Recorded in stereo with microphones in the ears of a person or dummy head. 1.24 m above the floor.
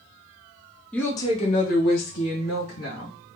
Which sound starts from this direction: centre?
A woman speaking, at 0.9 s.